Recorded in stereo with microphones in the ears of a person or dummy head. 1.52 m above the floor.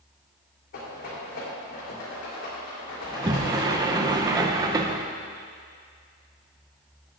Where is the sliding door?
20° right (ahead or behind), 0.7 m.